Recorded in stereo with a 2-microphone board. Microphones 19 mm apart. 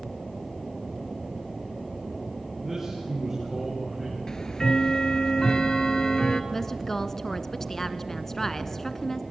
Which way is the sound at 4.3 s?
30° left (ahead or behind).